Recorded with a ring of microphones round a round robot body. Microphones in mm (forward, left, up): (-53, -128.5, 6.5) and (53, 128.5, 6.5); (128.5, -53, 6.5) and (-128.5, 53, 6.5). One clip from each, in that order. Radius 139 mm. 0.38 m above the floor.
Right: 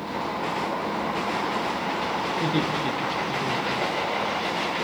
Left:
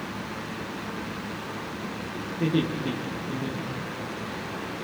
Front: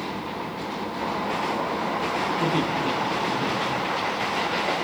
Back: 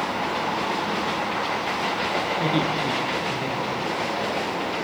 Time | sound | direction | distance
2.4 | laughter | 145° right | 6 m